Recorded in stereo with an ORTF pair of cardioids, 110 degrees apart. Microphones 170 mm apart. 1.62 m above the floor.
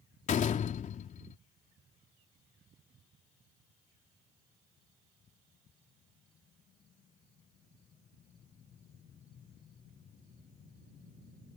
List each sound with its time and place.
0.3 s a door slam: 45° left